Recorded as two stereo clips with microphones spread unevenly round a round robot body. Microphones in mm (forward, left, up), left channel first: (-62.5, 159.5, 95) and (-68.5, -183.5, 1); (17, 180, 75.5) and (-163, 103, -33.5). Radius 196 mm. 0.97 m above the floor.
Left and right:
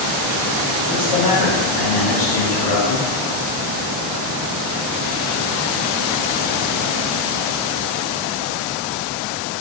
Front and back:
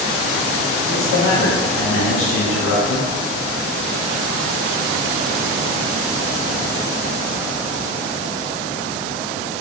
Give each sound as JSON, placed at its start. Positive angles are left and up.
{"t": 0.9, "sound": "a man speaking", "azimuth_deg": 45, "distance_m": 2.5}